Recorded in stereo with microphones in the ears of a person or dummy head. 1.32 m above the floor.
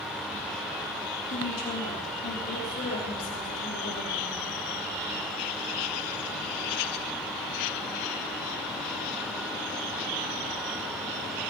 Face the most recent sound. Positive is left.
turn(degrees=60)  # may be behind; listen again after turning